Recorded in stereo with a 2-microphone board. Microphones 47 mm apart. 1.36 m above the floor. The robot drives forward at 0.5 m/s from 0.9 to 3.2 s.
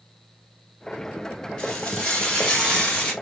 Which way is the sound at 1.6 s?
15° left (ahead or behind).